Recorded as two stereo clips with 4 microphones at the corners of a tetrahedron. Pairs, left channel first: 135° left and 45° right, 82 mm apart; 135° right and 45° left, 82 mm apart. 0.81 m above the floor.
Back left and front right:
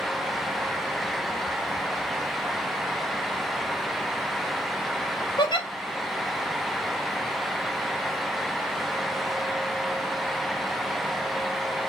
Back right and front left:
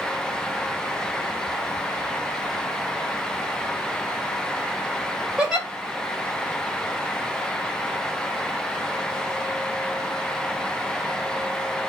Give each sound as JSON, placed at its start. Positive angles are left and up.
{"t": 5.4, "sound": "a giggle", "azimuth_deg": 125, "distance_m": 1.1}